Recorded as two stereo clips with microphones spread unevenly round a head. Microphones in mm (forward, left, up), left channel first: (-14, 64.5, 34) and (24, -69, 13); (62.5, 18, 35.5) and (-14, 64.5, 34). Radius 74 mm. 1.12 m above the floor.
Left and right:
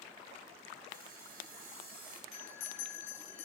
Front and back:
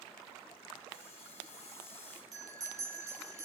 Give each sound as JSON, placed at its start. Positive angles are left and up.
{"t": 0.9, "sound": "sawing", "azimuth_deg": -50, "distance_m": 3.0}
{"t": 2.3, "sound": "a bell", "azimuth_deg": 100, "distance_m": 5.0}